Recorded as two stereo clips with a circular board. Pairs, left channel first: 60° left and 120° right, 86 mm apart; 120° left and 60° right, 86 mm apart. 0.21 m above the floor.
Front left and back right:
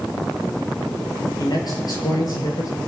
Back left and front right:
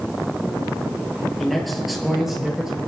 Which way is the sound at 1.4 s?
30° left.